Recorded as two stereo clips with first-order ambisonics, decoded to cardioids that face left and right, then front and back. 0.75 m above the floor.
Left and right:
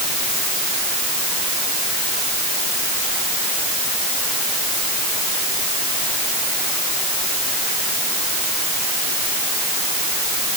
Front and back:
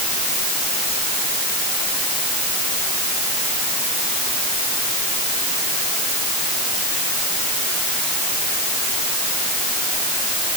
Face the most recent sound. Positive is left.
No sound to turn to.